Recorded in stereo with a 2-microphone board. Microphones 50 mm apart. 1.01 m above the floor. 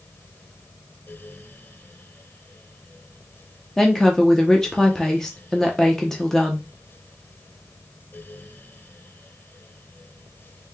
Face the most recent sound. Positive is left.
turn(degrees=10)  # may be behind; listen again after turning